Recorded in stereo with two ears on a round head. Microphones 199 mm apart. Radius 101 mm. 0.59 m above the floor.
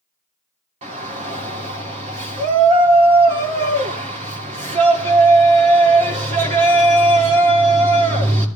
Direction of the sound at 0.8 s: 30° right (ahead or behind).